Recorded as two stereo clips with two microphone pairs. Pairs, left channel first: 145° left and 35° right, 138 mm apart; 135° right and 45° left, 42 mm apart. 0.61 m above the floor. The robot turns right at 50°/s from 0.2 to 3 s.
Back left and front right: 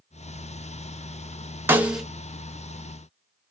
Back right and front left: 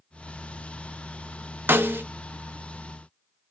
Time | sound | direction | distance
1.7 | a snare drum | 35° left | 0.6 m